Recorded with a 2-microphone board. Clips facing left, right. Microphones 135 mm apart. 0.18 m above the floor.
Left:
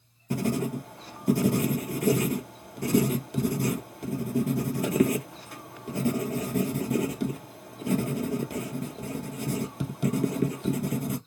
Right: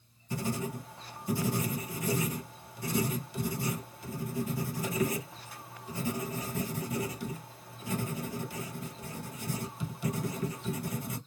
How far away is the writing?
About 0.6 m.